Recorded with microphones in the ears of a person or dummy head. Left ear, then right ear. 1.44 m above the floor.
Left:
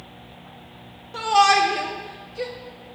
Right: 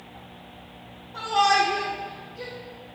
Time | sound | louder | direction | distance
1.1 | a shout | left 4 dB | 70° left (ahead or behind) | 0.5 m